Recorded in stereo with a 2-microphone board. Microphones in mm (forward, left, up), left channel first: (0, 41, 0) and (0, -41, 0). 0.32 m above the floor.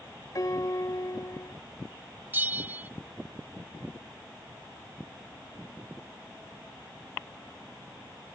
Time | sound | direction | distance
0.3 | a piano | 45° left (ahead or behind) | ?
2.3 | a bell | 25° right (ahead or behind) | ?